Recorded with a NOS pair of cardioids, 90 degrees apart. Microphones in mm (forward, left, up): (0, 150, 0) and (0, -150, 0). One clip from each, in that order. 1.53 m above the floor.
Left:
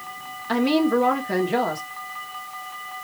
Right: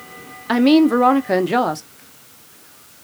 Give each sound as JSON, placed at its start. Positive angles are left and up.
{"t": 0.5, "sound": "a woman speaking", "azimuth_deg": -40, "distance_m": 0.9}